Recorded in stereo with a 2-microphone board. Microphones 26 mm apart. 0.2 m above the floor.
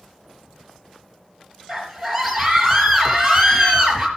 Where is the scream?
Centre (ahead or behind), 3.5 m.